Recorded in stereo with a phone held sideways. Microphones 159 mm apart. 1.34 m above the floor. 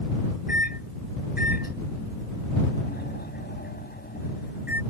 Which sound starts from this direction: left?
A microwave, at 0.5 s.